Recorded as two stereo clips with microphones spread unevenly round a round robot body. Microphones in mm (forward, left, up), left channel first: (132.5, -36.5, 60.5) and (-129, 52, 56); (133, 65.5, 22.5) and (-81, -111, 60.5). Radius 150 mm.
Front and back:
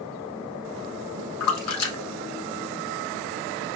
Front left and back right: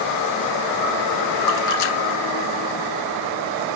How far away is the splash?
About 0.9 m.